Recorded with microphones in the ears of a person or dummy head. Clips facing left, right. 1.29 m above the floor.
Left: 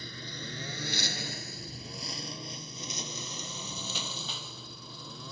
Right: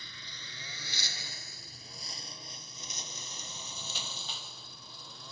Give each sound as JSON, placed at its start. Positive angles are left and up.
{"t": 0.0, "sound": "a lawn mower", "side_deg": 40}